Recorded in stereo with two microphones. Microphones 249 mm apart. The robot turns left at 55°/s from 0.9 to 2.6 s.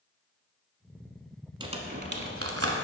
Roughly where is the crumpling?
Centre.